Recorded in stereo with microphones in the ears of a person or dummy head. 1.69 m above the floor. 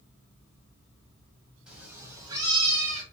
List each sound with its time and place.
1.7 s a cat meowing: 5° right (ahead or behind), 1.7 m; by 3.0 s 35° right (ahead or behind), 2 m